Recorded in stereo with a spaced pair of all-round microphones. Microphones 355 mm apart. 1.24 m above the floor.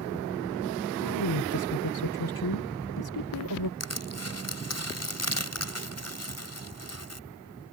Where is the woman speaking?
85° left.